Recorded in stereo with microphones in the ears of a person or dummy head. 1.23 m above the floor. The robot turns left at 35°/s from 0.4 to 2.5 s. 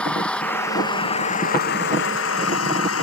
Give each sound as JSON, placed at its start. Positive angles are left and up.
{"t": 0.0, "sound": "an engine running", "azimuth_deg": 180}